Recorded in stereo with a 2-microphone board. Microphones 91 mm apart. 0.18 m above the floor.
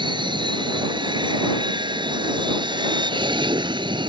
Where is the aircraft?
60° right (ahead or behind).